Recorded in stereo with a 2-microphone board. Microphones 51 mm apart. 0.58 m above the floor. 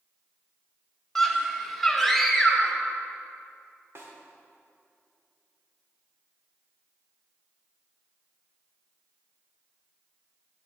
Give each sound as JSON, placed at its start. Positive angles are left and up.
{"t": 1.1, "sound": "a scream", "side_deg": 5, "distance_m": 1.5}
{"t": 4.0, "sound": "a snare drum", "side_deg": -60, "distance_m": 1.6}